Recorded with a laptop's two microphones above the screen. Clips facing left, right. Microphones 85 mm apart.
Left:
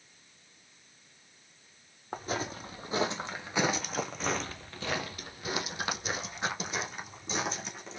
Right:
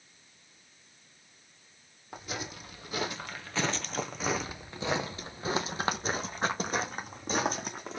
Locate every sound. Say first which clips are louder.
2.1 s footsteps: left 5 dB; 40° left (ahead or behind), 1.5 m; by 8.0 s 45° right (ahead or behind), 2.5 m